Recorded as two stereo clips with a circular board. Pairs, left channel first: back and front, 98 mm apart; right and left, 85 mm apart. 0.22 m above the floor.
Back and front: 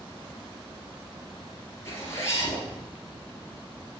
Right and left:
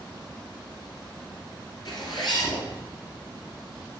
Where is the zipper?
120° right, 3 m.